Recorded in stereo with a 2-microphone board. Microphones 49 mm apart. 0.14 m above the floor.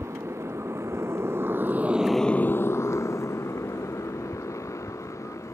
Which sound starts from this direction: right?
A motorcycle, at 0.0 s.